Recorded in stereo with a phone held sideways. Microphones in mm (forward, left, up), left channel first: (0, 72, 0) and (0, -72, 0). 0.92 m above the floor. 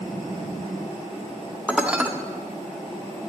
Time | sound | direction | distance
1.7 | dishes clattering | 10° right (ahead or behind) | 1.2 m